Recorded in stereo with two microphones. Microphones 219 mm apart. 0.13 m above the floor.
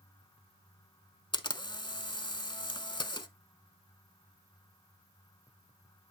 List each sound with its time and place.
1.3 s a camera shutter: 20° left (ahead or behind), 0.6 m